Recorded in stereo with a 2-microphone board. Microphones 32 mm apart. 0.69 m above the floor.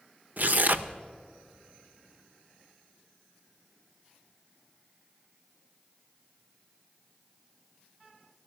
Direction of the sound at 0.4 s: 55° right (ahead or behind).